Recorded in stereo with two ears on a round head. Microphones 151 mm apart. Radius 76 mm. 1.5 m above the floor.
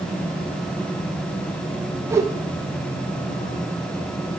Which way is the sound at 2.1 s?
15° right (ahead or behind).